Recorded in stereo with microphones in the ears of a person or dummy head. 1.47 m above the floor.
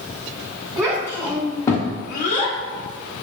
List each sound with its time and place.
0.8 s a child speaking: 15° right (ahead or behind), 1.4 m; by 3.2 s 35° left (ahead or behind), 1.9 m